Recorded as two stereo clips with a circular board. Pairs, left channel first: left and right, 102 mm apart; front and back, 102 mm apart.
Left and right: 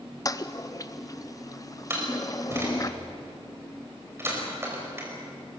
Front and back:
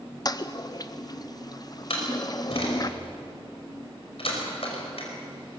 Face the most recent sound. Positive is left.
turn(degrees=-25)